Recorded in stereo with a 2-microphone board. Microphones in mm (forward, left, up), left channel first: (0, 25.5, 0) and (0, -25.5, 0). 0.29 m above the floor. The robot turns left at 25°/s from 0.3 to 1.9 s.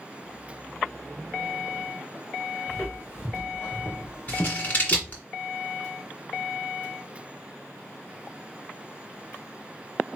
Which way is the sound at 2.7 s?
45° left (ahead or behind).